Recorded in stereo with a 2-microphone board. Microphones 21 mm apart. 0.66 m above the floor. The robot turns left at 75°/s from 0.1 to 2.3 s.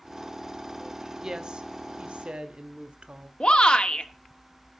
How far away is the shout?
About 1.7 m.